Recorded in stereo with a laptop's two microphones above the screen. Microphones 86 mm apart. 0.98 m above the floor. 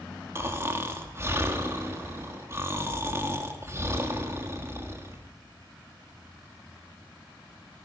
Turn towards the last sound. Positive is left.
turn(degrees=-30)  # may be behind; listen again after turning